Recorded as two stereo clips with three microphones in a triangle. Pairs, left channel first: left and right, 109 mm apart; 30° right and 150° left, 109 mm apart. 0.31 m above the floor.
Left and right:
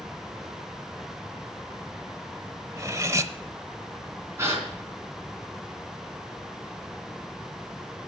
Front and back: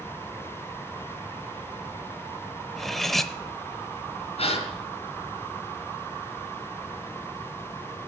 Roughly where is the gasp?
Ahead right.